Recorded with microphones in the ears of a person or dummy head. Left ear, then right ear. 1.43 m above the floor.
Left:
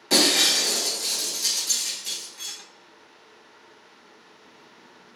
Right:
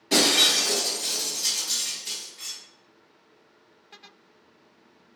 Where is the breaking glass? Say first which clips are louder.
Even; 30° left (ahead or behind), 1.1 m.